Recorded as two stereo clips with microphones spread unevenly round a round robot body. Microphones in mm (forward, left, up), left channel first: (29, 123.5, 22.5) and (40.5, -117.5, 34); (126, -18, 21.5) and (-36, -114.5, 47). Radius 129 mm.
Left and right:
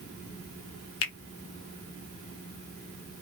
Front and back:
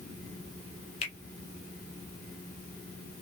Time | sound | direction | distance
1.0 | a finger snap | 80° left | 0.7 m